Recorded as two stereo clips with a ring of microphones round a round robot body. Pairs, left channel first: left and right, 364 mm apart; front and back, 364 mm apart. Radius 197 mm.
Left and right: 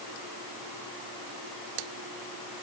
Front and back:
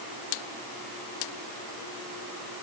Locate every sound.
Only background noise.